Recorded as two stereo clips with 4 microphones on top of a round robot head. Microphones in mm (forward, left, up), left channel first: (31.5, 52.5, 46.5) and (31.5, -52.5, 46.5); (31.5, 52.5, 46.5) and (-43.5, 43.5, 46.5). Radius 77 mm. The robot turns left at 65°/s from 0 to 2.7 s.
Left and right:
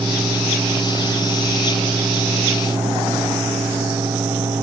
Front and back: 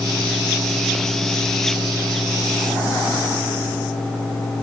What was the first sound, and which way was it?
Only background noise.